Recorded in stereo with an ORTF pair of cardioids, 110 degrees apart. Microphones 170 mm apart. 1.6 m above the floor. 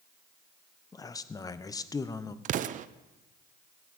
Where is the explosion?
55° right, 0.7 m.